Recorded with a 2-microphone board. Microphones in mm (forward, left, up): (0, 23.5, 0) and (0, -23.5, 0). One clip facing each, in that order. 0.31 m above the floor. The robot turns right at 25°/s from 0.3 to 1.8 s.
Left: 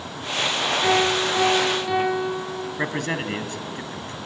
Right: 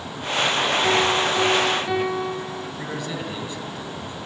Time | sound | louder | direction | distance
0.8 | a piano | left 1 dB | 15° left (ahead or behind) | 4 m
2.8 | a man speaking | left 6 dB | 55° left (ahead or behind) | 2.5 m